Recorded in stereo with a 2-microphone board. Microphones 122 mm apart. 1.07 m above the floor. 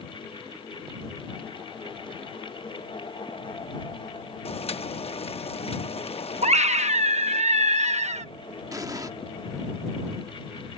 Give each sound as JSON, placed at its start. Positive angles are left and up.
{"t": 4.5, "sound": "boiling", "side_deg": 55}
{"t": 6.4, "sound": "a scream", "side_deg": -70}
{"t": 8.7, "sound": "an explosion", "side_deg": -30}